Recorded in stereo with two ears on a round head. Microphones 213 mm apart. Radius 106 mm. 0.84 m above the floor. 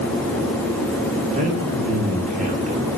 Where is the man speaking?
30° right (ahead or behind), 8.5 m.